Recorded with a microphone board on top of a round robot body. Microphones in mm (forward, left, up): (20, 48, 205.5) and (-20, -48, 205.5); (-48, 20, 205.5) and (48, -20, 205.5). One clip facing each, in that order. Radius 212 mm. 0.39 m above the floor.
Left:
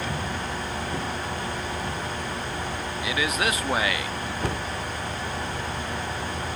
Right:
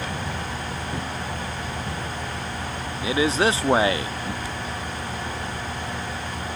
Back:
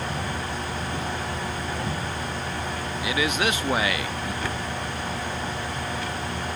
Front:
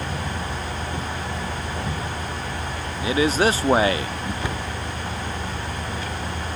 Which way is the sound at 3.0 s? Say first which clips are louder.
Right 6 dB, front 6 dB; 65° right.